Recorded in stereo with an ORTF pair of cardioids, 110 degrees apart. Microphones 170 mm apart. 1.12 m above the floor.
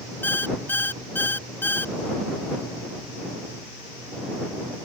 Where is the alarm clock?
10° left.